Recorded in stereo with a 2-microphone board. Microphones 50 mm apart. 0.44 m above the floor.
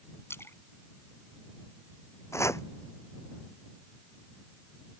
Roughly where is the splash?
Left.